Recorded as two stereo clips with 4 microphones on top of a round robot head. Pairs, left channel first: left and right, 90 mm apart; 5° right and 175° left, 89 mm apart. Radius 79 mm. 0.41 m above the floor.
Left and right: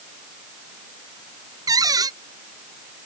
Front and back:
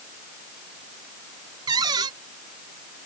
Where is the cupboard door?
135° right.